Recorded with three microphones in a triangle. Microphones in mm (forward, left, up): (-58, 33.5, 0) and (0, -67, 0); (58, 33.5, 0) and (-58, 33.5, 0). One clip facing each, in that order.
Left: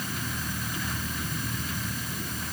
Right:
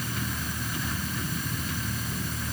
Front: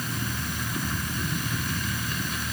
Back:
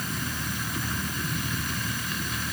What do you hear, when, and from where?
Only background noise.